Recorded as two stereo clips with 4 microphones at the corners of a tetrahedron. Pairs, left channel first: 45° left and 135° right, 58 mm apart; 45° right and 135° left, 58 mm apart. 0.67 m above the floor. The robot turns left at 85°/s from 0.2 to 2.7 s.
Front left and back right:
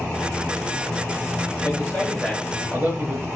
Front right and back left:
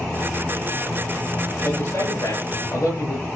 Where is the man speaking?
10° left, 9 m; by 3.3 s 80° right, 9 m.